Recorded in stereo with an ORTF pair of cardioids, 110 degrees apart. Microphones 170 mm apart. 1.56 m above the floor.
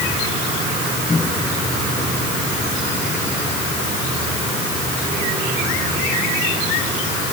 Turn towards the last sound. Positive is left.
turn(degrees=20)